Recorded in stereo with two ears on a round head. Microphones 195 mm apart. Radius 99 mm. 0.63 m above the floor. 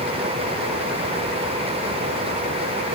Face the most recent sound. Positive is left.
No sound to turn to.